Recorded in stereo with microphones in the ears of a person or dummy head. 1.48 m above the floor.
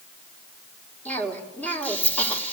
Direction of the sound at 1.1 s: 5° left (ahead or behind).